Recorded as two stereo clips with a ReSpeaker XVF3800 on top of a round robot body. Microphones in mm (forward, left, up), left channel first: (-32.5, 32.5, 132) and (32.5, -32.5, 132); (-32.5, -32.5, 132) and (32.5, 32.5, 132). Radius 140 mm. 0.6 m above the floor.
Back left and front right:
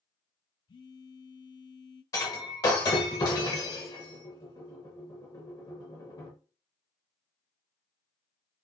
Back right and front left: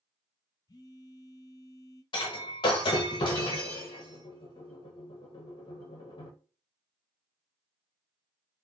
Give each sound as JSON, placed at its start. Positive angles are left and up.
{"t": 0.7, "sound": "a phone buzzing", "azimuth_deg": 175, "distance_m": 0.7}
{"t": 2.1, "sound": "breaking glass", "azimuth_deg": -175, "distance_m": 0.7}